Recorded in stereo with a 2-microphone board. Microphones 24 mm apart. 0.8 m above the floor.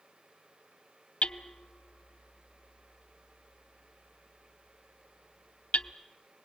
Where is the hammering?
60° left (ahead or behind), 0.7 m.